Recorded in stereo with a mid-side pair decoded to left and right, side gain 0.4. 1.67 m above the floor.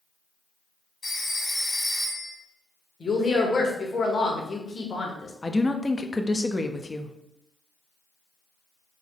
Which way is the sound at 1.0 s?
45° left.